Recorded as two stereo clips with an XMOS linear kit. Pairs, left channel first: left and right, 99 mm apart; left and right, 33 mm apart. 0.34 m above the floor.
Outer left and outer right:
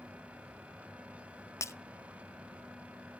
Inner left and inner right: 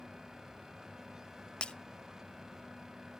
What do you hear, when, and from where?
1.6 s breaking glass: 30° left (ahead or behind), 0.6 m